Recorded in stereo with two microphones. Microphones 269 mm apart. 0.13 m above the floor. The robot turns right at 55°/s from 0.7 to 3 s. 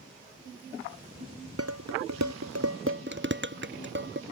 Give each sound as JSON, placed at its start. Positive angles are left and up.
{"t": 1.6, "sound": "dishes clattering", "side_deg": -60}